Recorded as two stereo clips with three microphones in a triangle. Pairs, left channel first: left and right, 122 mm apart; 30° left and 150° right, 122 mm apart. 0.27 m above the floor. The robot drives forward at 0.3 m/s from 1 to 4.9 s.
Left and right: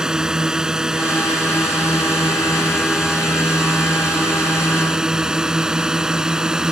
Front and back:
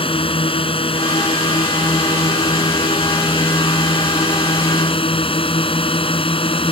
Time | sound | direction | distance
0.0 | a drone | 5° right | ?